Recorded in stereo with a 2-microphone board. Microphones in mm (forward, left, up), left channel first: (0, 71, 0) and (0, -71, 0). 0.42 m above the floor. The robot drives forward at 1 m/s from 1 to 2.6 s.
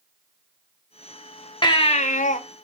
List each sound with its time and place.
1.6 s a baby crying: 30° left (ahead or behind), 0.8 m; by 2.4 s 55° left (ahead or behind), 0.5 m